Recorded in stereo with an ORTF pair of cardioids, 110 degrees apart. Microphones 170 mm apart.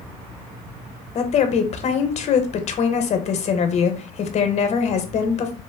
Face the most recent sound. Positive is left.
turn(degrees=45)